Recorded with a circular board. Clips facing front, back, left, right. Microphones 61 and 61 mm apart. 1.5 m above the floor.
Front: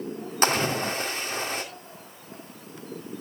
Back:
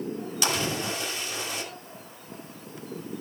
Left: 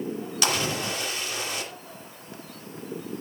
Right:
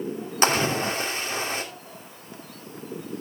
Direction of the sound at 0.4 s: 40° right.